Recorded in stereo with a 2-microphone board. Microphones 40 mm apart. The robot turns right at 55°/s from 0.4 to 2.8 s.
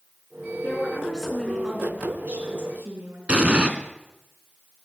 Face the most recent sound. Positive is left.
turn(degrees=-35)  # may be behind; listen again after turning